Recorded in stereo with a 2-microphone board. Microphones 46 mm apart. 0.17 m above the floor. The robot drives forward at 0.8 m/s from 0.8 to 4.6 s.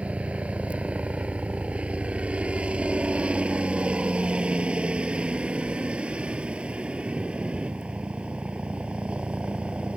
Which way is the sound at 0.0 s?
30° right (ahead or behind).